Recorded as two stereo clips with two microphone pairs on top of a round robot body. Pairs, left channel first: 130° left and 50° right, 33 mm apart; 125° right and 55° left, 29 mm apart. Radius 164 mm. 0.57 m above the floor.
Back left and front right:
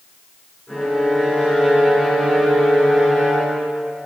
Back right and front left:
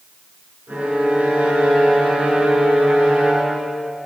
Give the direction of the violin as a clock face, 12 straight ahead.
10 o'clock.